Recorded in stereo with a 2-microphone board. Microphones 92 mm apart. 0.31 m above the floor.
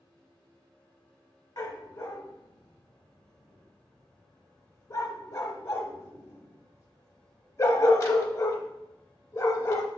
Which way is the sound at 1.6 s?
40° left (ahead or behind).